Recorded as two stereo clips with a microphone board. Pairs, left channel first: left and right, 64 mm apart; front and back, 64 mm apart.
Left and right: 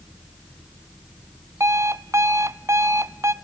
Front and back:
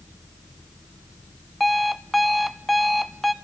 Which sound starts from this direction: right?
An alarm clock, at 1.6 s.